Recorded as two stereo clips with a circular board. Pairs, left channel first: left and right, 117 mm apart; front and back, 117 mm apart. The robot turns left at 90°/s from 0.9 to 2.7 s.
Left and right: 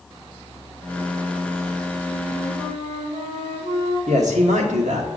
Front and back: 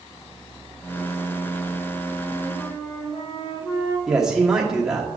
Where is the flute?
15° left, 3 m; by 4.0 s 45° right, 3 m.